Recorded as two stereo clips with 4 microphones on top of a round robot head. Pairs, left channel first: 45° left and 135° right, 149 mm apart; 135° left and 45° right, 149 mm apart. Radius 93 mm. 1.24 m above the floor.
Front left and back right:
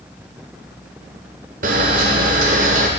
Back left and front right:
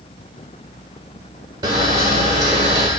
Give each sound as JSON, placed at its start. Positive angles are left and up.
{"t": 1.6, "sound": "a camera shutter", "azimuth_deg": -110, "distance_m": 1.3}